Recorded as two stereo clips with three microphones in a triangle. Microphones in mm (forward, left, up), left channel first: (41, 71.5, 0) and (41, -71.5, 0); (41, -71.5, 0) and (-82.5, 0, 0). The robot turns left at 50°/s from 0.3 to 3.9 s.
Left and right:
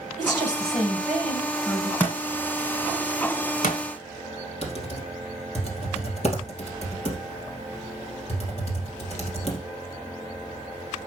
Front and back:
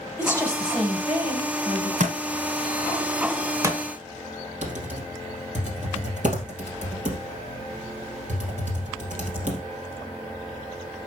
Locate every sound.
0.2 s a woman speaking: 95° right, 3 m; by 1.9 s 175° right, 3 m
2.0 s a thud: 170° left, 1.3 m; by 3.8 s 80° left, 1.3 m
4.6 s typing on a keyboard: 125° left, 2.5 m